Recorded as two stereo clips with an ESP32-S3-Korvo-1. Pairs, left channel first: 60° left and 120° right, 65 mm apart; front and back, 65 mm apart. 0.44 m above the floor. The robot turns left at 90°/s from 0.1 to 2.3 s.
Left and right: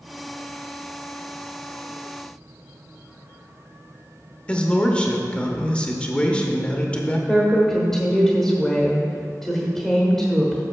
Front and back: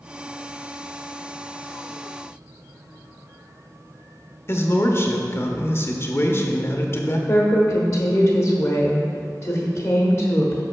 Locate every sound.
4.5 s a man speaking: 5° right, 0.9 m
7.3 s a woman speaking: 25° right, 1.2 m